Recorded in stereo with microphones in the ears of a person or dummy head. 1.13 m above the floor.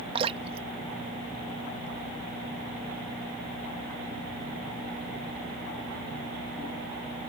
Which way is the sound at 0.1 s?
30° right (ahead or behind).